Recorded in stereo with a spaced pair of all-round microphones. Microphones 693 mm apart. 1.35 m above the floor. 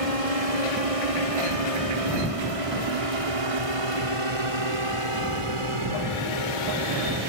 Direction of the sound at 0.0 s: 55° right (ahead or behind).